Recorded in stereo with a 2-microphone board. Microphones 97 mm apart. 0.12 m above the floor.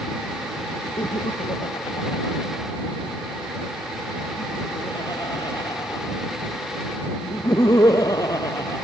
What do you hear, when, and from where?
1.0 s laughter: 55° left (ahead or behind); by 8.8 s 35° left (ahead or behind)